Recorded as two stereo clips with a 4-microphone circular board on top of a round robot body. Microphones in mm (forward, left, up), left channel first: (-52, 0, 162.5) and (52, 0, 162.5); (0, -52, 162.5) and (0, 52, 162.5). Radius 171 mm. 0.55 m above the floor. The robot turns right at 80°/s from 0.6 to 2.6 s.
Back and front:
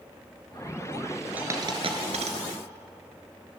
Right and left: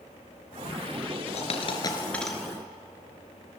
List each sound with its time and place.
1.4 s a dropped coin: 75° right, 1.8 m; by 2.4 s 5° left, 1.8 m